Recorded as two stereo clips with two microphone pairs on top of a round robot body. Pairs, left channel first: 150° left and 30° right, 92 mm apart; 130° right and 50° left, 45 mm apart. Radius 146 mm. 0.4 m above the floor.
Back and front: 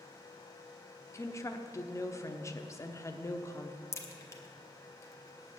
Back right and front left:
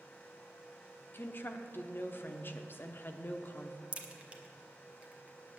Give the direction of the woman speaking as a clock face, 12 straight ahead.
5 o'clock.